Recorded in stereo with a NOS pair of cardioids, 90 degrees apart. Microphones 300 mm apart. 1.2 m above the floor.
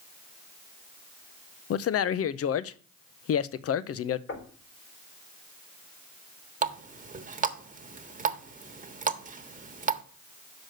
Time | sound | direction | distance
1.7 | a man speaking | 55° left | 0.7 m
4.3 | knocking | 50° left | 4 m
6.6 | a running tap | 25° right | 1.3 m